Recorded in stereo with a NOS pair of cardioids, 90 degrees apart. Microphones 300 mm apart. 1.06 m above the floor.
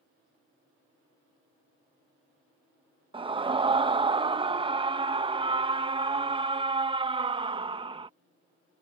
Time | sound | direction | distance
3.1 | a scream | 15° right | ?